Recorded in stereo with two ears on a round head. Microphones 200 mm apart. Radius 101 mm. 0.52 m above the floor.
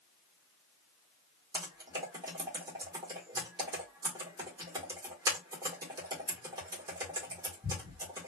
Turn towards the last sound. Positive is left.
turn(degrees=-15)  # may be behind; listen again after turning